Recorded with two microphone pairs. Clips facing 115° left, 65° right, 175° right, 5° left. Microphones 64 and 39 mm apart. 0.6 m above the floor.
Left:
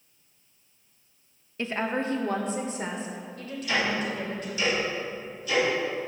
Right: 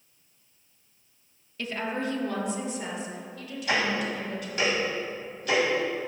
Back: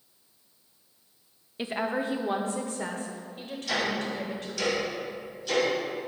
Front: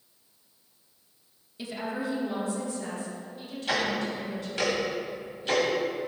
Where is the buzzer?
I don't hear a buzzer.